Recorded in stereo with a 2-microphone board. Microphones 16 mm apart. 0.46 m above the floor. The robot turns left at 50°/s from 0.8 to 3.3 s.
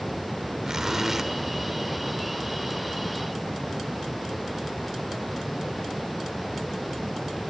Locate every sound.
0.6 s a zipper: 35° right (ahead or behind), 1.2 m; by 1.3 s 20° right (ahead or behind), 1.2 m